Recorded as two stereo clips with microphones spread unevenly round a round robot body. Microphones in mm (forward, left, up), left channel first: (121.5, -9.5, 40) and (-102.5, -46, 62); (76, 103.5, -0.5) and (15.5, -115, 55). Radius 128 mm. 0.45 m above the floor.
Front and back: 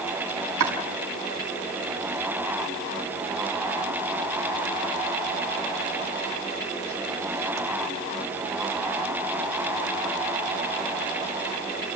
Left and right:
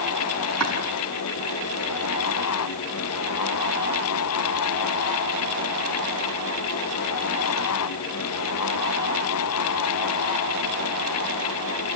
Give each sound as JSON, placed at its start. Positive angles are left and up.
{"t": 0.6, "sound": "chopping", "azimuth_deg": 155, "distance_m": 5.5}